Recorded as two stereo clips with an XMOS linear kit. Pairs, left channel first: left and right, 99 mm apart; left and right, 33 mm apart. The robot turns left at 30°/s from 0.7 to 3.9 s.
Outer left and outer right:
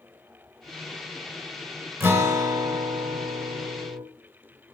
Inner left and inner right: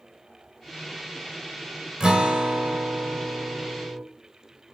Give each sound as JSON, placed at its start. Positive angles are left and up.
{"t": 2.0, "sound": "a guitar", "azimuth_deg": -25, "distance_m": 1.9}